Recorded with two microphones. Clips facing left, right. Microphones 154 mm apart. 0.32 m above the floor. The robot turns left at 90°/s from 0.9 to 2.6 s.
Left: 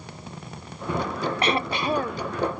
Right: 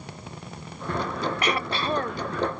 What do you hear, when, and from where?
1.4 s throat clearing: 65° left; by 2.3 s 15° right